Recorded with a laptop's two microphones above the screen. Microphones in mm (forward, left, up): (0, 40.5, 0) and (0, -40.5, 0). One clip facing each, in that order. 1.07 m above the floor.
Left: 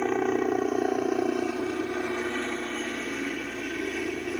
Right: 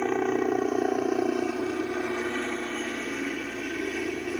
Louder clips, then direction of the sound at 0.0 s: Even; centre (ahead or behind).